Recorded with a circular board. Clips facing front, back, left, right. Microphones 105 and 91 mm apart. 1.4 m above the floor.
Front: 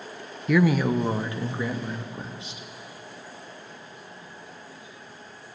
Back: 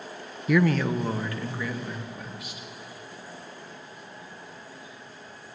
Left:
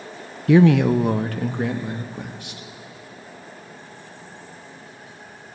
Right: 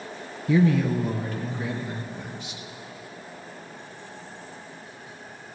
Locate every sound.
0.5 s a man speaking: 90° left, 0.6 m; by 2.6 s 60° left, 2.5 m